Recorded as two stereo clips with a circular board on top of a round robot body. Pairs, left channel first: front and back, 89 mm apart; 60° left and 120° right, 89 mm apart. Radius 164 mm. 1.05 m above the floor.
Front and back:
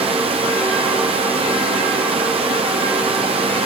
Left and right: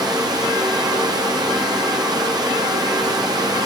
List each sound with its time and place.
0.0 s running water: 165° right, 1.0 m